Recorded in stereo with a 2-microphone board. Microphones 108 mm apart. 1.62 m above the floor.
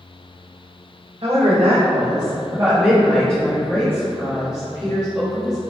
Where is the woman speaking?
55° right (ahead or behind), 0.9 m; by 5.6 s 30° left (ahead or behind), 2 m.